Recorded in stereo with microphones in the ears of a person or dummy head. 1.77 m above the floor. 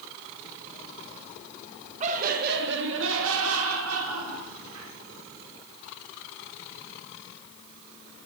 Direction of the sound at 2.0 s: 40° right (ahead or behind).